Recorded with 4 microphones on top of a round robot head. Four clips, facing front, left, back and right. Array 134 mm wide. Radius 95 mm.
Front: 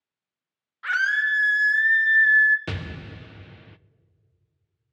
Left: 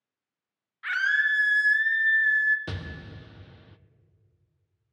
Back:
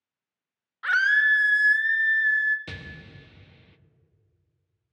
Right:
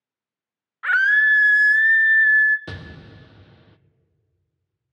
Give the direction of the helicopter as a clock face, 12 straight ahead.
No helicopter in this recording.